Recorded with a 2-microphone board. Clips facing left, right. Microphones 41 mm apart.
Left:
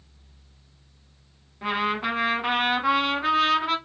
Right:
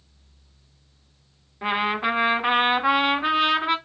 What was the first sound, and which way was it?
A trumpet, 15° right (ahead or behind).